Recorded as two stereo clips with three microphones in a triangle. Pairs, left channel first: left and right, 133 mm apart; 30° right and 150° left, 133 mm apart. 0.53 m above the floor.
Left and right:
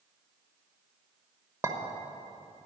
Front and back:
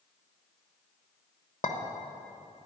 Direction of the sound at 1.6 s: 25° right.